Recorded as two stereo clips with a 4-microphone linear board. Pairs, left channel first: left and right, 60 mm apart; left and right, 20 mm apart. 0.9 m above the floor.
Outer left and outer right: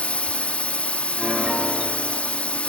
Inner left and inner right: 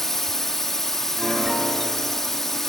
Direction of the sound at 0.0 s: 20° left (ahead or behind).